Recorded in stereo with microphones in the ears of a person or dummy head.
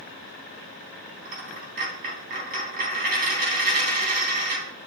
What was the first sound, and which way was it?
A dropped coin, 50° right (ahead or behind).